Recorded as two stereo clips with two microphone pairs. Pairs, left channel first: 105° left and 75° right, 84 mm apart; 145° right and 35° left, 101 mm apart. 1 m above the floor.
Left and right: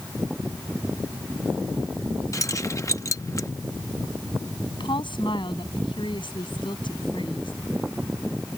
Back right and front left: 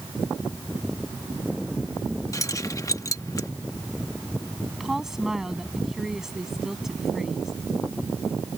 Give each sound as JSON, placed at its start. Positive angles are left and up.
{"t": 2.3, "sound": "keys jangling", "azimuth_deg": 155}
{"t": 4.8, "sound": "a woman speaking", "azimuth_deg": 120}